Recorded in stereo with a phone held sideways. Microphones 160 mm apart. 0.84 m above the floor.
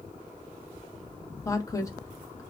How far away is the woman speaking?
About 0.8 m.